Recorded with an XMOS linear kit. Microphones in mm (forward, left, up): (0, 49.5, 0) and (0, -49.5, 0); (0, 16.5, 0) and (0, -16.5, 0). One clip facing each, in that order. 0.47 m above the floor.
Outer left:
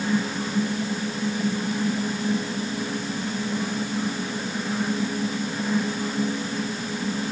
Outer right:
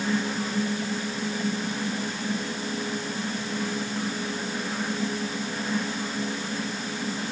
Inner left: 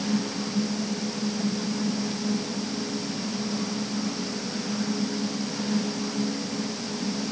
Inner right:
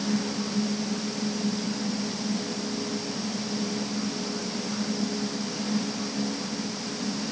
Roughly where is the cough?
No cough in this recording.